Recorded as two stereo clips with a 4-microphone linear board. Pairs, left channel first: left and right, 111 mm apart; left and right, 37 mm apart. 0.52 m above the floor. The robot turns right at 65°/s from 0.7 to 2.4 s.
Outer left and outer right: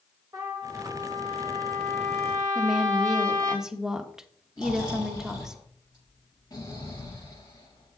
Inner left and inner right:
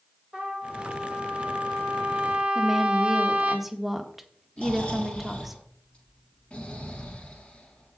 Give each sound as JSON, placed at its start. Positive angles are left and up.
{"t": 0.3, "sound": "a trumpet", "azimuth_deg": -150, "distance_m": 2.0}
{"t": 2.5, "sound": "a woman speaking", "side_deg": -5, "distance_m": 1.0}
{"t": 4.6, "sound": "snoring", "side_deg": 35, "distance_m": 6.5}